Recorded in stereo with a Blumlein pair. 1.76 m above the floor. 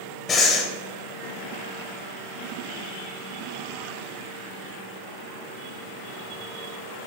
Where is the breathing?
25° left, 1.6 m.